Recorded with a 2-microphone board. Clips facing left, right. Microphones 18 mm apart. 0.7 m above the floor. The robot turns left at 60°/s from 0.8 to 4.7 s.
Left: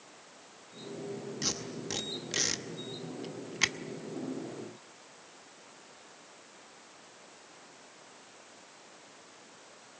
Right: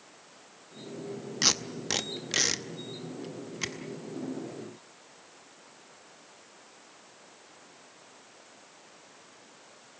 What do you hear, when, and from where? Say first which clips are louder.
1.4 s tape being pulled: right 10 dB; 40° right (ahead or behind), 0.8 m; by 3.8 s 30° left (ahead or behind), 0.8 m